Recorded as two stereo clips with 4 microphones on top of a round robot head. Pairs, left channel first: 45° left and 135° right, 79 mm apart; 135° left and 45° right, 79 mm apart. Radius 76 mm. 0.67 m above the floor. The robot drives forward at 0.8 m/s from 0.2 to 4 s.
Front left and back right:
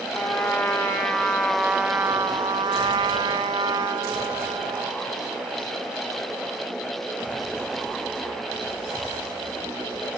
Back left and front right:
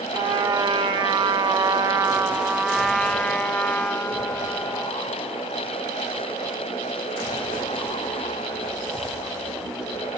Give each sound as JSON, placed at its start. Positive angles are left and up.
{"t": 0.1, "sound": "a trumpet", "azimuth_deg": -20, "distance_m": 1.7}